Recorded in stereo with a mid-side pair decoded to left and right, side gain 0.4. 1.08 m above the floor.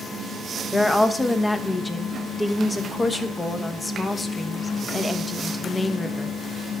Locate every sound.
0.7 s a woman speaking: 25° left, 1.1 m